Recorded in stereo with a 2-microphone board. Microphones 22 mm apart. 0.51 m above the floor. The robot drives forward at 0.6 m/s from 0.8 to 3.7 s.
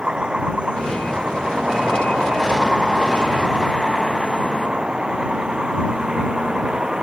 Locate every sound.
0.0 s a vehicle: 45° right (ahead or behind); by 7.0 s 40° right (ahead or behind)